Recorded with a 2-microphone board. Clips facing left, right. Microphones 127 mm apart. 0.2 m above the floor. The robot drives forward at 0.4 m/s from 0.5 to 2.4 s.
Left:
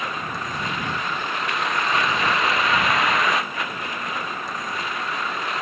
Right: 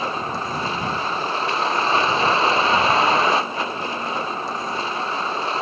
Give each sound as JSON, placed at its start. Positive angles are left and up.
{"t": 0.0, "sound": "a vehicle", "side_deg": -30}